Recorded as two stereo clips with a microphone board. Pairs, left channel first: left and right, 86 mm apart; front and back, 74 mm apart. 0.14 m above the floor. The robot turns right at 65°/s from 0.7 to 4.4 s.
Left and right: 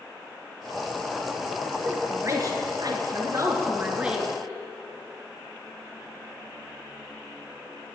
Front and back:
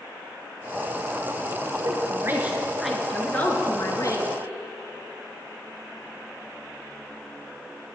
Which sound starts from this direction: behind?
A woman speaking, at 1.8 s.